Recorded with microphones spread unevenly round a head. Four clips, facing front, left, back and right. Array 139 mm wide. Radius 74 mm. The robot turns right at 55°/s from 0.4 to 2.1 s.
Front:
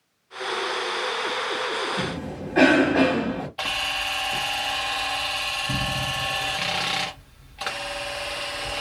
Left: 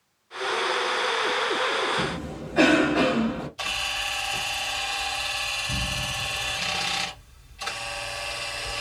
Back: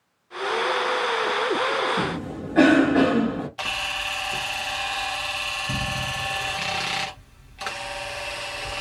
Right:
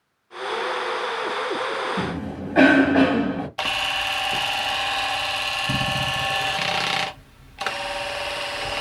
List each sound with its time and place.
2.0 s a cough: 85° right, 1.3 m; by 3.5 s 80° right, 1.3 m
3.6 s a camera shutter: 75° right, 0.6 m